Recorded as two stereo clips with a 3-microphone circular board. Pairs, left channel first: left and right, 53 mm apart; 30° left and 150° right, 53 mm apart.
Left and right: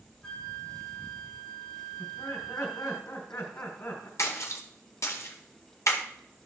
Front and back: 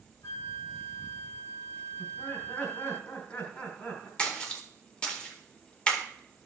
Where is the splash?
100° left, 1.9 m.